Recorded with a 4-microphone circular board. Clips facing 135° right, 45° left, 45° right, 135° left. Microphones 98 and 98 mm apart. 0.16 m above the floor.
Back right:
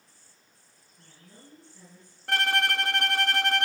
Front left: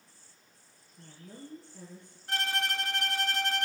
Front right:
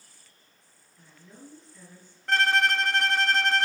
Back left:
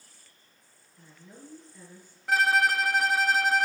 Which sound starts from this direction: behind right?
A violin, at 2.3 s.